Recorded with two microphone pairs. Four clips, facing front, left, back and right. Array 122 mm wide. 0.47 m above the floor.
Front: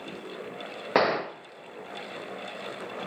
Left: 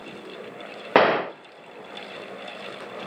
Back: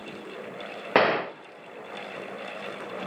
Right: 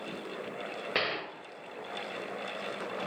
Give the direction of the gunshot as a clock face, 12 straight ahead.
9 o'clock.